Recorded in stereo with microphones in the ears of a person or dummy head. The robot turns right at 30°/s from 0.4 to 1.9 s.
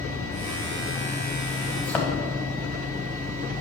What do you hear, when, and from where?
1.8 s a thud: 5° left (ahead or behind), 1.7 m; by 2.1 s 10° left (ahead or behind), 1.7 m